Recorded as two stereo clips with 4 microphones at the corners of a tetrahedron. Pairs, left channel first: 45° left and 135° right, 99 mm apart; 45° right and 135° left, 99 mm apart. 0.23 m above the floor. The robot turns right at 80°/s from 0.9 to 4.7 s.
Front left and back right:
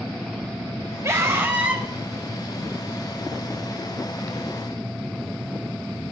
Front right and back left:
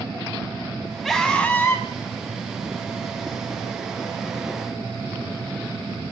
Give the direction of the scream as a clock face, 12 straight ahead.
4 o'clock.